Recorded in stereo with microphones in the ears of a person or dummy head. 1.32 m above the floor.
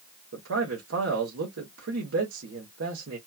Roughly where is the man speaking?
Right.